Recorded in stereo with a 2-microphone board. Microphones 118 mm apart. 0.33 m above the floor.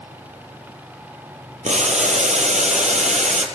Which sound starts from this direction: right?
Boiling, at 1.6 s.